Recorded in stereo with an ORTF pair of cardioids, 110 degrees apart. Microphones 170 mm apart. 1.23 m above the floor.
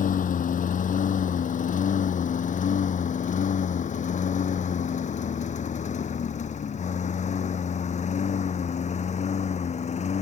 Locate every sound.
0.0 s a lawn mower: 50° left; by 10.2 s 40° left